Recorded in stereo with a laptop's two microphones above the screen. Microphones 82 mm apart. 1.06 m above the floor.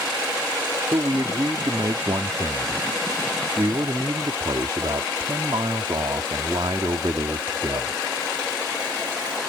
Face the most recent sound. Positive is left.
turn(degrees=-70)  # may be behind; listen again after turning